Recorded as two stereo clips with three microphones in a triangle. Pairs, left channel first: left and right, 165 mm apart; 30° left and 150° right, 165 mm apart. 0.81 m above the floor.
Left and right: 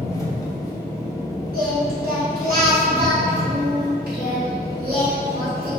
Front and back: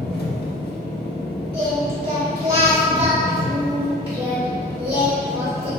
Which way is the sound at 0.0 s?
25° left.